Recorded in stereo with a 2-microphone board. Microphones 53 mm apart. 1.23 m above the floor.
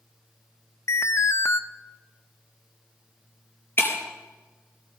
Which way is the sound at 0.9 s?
55° left (ahead or behind).